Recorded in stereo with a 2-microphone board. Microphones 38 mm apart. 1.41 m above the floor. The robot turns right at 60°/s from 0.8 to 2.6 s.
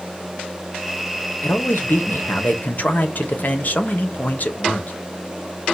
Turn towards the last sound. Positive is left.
turn(degrees=130)